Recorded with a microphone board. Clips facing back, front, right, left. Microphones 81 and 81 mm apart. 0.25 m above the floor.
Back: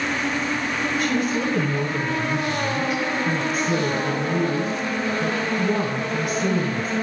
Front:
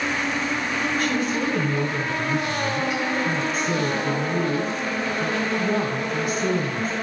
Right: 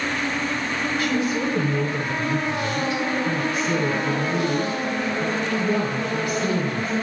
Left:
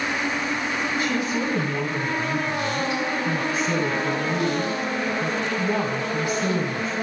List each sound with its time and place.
1.0 s a woman speaking: 90° left, 1.3 m